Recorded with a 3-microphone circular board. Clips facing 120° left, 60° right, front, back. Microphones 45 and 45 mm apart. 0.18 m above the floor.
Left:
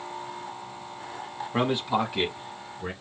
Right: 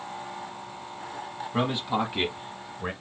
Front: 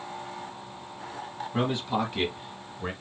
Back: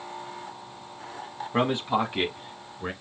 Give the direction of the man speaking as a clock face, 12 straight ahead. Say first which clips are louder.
Left 2 dB, back 3 dB; 6 o'clock.